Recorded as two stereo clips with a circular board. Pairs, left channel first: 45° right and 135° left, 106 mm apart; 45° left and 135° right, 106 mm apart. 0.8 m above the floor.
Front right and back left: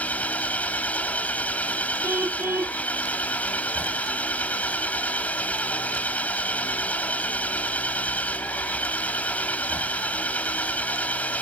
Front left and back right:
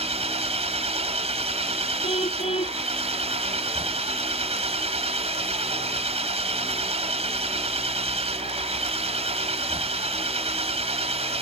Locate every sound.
0.0 s an engine running: 120° right
2.0 s a car horn: 65° left